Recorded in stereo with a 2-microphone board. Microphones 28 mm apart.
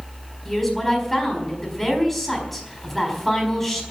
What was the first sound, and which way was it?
A woman speaking, centre (ahead or behind).